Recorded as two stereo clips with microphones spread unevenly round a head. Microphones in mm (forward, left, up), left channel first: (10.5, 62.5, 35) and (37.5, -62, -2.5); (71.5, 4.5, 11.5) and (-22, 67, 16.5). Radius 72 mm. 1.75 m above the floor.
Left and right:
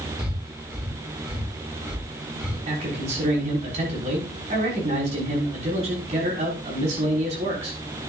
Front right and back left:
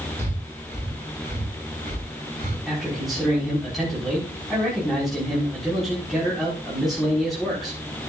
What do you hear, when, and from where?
0.2 s breathing: 165° right, 7 m
2.7 s a man speaking: 125° right, 6 m